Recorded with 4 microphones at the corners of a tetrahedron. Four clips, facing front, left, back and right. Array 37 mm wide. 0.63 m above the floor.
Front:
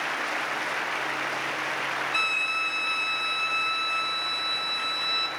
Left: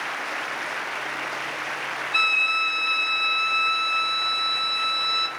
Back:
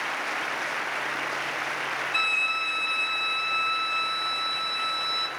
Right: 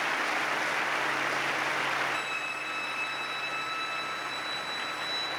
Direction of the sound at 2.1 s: 85° left.